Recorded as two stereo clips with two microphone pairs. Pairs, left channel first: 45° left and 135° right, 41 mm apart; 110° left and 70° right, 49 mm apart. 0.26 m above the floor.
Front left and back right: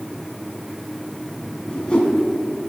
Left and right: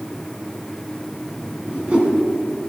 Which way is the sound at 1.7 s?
15° right.